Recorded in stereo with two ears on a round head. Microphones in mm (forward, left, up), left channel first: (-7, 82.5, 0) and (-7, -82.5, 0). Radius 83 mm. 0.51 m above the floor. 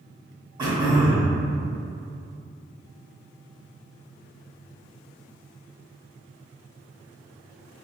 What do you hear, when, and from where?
0.6 s throat clearing: 25° right (ahead or behind), 0.8 m